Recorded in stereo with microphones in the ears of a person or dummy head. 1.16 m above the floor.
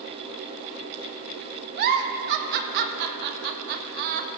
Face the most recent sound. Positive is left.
turn(degrees=-55)  # may be behind; listen again after turning